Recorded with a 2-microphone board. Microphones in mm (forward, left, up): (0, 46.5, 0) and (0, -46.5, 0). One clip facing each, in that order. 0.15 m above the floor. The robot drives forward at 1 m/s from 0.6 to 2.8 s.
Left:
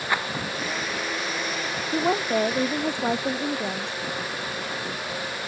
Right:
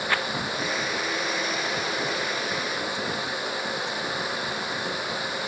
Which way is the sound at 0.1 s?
15° left (ahead or behind).